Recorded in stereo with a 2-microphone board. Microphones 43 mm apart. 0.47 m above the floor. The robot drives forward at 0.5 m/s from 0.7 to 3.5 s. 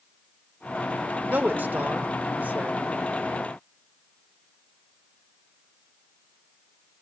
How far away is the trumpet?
I don't hear a trumpet.